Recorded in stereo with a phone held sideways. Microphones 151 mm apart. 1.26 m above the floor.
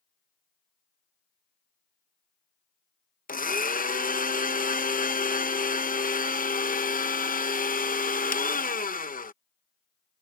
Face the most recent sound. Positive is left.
turn(degrees=70)  # may be behind; listen again after turning